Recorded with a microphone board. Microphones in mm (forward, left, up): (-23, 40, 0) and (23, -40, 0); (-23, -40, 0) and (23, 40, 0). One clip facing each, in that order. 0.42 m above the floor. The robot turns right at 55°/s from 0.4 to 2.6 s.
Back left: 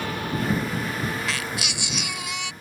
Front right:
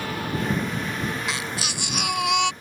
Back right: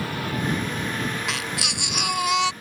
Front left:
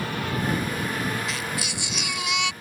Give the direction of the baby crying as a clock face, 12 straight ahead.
4 o'clock.